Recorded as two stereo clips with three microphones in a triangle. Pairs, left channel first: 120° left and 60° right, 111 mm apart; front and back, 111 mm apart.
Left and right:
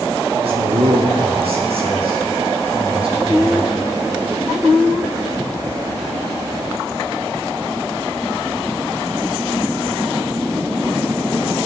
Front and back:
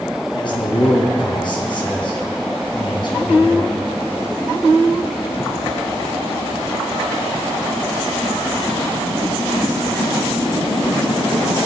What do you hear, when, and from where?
0.3 s a man speaking: 40° right, 4 m